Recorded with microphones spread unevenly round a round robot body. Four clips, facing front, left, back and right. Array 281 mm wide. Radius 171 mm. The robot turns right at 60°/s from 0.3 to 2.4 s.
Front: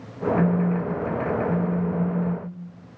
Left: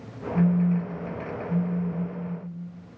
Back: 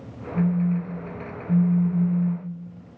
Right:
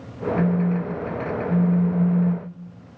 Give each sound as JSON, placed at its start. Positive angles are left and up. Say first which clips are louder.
{"t": 0.3, "sound": "a phone buzzing", "louder": "even, even", "azimuth_deg": 125, "distance_m": 0.7}